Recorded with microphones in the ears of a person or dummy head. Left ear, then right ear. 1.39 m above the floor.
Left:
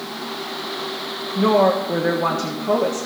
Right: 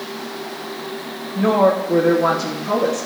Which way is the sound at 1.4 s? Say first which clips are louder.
Right 1 dB; 40° left (ahead or behind).